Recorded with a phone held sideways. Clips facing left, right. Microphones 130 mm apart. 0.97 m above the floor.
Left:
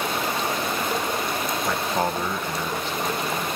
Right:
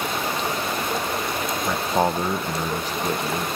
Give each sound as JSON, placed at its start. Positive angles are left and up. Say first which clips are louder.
{"t": 1.6, "sound": "a man speaking", "louder": "right 4 dB", "side_deg": -10, "distance_m": 0.7}